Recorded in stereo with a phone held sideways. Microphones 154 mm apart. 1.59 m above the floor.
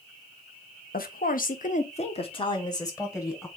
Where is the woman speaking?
65° left (ahead or behind), 0.8 m; by 3.5 s 15° left (ahead or behind), 1.3 m.